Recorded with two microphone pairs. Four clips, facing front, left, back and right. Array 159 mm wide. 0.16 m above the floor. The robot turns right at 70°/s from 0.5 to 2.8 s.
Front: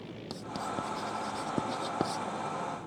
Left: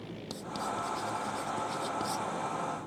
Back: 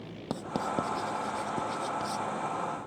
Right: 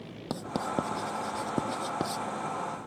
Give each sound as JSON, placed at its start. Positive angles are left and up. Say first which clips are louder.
{"t": 0.3, "sound": "writing", "louder": "right 5 dB, back 5 dB", "azimuth_deg": -135}